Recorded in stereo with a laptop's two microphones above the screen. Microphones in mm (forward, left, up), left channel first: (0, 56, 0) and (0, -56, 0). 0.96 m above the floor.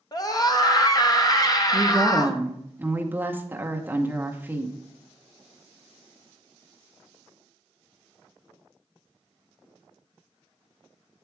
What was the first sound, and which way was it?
A scream, 35° left (ahead or behind).